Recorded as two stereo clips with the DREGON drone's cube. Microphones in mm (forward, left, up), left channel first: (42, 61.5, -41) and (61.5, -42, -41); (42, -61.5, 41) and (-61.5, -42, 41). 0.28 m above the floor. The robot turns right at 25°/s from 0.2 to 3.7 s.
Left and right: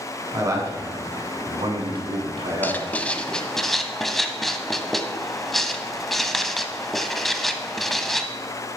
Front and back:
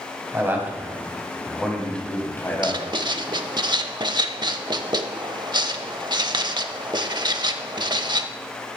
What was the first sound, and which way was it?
A man speaking, 130° right.